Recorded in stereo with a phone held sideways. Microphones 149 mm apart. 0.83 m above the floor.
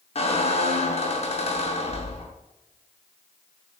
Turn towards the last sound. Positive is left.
turn(degrees=45)  # may be behind; listen again after turning